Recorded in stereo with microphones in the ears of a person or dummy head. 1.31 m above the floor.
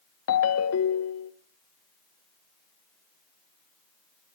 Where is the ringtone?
70° left (ahead or behind), 0.7 m.